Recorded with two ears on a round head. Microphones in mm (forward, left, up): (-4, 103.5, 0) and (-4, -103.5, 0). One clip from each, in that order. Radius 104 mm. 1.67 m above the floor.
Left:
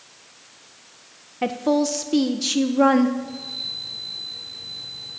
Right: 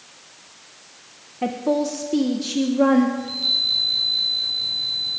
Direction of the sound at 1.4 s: 40° left (ahead or behind).